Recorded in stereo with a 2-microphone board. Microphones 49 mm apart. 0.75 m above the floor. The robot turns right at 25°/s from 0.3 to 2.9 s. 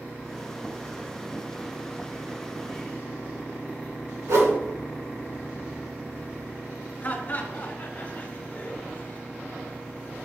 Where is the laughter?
40° left (ahead or behind), 2 m.